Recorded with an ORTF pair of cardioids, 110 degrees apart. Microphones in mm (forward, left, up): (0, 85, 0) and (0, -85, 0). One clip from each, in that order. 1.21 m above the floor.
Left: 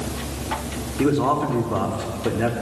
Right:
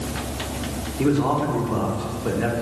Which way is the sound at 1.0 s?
25° left.